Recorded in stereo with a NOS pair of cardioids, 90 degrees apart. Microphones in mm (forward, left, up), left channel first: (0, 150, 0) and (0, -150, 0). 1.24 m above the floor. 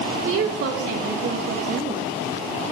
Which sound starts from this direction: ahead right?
A woman speaking, at 0.2 s.